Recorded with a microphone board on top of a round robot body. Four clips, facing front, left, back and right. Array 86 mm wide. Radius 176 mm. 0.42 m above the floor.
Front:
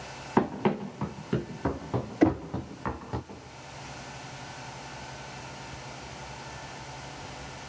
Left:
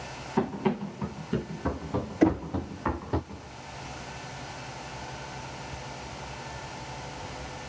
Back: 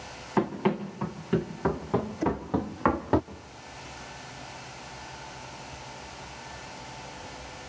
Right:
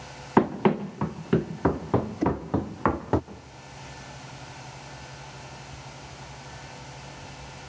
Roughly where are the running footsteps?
Right.